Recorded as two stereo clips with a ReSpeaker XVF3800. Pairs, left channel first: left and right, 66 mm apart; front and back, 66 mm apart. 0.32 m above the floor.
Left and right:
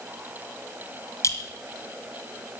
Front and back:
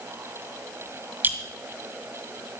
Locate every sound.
1.2 s a clink: 125° left, 1.7 m